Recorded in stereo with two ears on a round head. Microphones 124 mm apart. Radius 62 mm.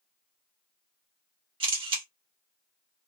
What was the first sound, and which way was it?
A camera shutter, 40° right (ahead or behind).